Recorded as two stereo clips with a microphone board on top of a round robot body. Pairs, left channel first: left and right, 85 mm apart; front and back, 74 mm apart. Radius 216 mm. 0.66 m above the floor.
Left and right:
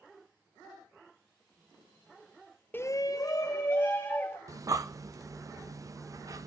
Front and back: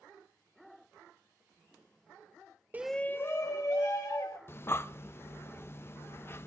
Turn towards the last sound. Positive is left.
turn(degrees=-50)